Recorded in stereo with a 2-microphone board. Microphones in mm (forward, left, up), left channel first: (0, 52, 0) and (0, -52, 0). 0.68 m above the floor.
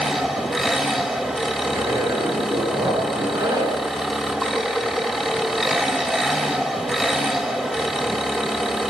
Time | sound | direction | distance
0.0 | an engine running | centre (ahead or behind) | 3 m
1.6 | a zipper | 30° right (ahead or behind) | 8 m